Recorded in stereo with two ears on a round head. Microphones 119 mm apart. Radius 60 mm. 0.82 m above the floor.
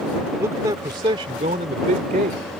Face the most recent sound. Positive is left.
turn(degrees=-65)  # may be behind; listen again after turning